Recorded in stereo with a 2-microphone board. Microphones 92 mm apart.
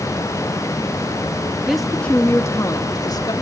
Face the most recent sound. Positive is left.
turn(degrees=45)  # may be behind; listen again after turning